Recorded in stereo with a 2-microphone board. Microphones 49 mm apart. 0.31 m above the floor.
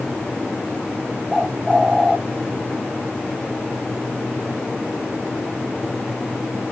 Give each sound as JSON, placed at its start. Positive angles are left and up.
{"t": 1.3, "sound": "a bird", "side_deg": -5, "distance_m": 0.6}